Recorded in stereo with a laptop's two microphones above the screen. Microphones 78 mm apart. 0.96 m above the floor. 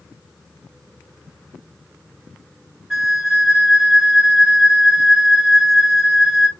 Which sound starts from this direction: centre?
A flute, at 2.9 s.